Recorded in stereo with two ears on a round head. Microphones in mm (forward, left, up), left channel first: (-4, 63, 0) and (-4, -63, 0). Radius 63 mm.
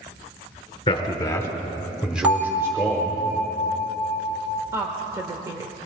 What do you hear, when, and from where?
0.9 s a man speaking: 35° left (ahead or behind), 1.5 m; by 3.2 s 30° right (ahead or behind), 1.8 m
2.2 s a bell: 10° right (ahead or behind), 2 m
4.7 s a woman speaking: 20° right (ahead or behind), 1.0 m